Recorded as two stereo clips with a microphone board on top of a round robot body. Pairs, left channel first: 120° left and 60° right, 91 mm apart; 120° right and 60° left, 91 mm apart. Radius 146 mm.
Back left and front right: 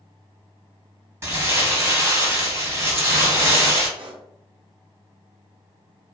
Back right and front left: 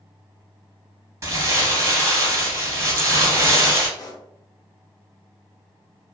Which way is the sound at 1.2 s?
Straight ahead.